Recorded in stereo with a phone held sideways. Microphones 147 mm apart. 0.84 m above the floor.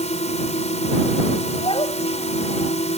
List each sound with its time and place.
0.0 s a drone: 50° left (ahead or behind)
1.6 s a child speaking: 40° left (ahead or behind)